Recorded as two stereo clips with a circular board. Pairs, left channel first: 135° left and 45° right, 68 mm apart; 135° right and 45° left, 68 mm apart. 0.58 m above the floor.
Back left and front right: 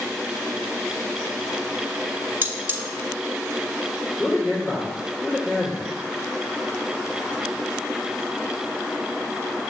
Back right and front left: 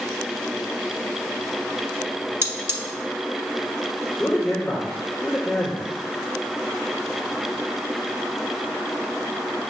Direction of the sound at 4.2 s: 125° left.